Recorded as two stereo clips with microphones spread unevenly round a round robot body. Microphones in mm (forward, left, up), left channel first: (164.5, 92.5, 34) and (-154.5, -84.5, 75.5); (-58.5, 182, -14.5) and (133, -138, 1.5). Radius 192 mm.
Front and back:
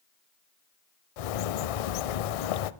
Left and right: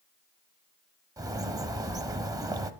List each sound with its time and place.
1.2 s a bird: 20° left, 0.5 m